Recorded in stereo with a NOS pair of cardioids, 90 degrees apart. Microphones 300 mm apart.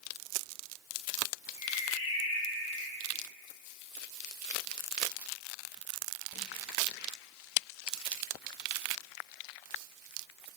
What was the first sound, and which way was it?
A bird, 60° left.